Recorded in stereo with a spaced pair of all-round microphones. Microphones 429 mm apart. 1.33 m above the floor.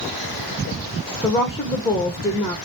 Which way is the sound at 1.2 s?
5° left (ahead or behind).